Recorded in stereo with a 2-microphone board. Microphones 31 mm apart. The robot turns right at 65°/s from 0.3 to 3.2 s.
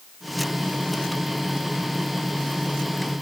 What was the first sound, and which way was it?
Only background noise.